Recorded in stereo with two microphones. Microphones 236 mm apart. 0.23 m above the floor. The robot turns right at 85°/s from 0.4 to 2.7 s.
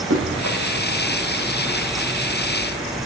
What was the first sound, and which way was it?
Running footsteps, 70° right (ahead or behind).